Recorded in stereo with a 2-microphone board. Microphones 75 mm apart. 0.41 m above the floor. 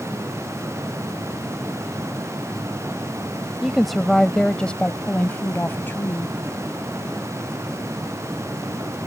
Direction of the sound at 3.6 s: 5° right (ahead or behind).